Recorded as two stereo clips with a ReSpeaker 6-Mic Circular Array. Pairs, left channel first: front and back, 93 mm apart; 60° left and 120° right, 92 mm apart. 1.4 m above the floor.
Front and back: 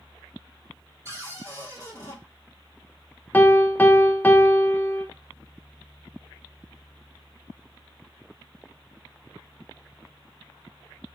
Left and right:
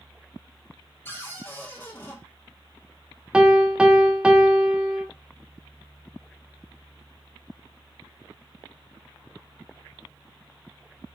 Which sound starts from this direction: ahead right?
A piano, at 3.3 s.